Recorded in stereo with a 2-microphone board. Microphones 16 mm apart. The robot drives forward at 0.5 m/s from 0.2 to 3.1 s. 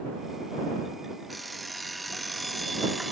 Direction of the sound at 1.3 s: Centre (ahead or behind).